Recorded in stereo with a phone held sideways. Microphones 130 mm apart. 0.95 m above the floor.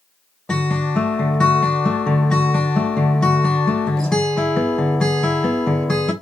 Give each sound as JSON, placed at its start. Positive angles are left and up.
{"t": 0.5, "sound": "a guitar", "side_deg": 5, "distance_m": 0.5}